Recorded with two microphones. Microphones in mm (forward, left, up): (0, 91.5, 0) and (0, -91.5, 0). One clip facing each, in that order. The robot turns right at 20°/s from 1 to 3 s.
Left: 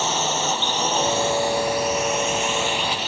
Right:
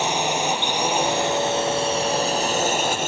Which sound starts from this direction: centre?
A drone, at 0.0 s.